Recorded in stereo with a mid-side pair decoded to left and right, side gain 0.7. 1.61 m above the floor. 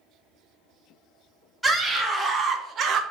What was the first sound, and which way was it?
A scream, 10° right.